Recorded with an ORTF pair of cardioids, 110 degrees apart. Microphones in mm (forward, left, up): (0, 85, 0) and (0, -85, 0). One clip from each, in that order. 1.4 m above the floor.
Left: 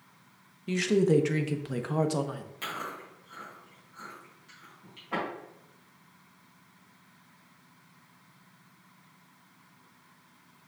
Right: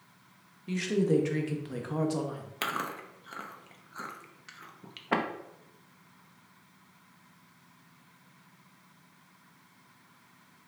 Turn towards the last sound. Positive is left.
turn(degrees=-65)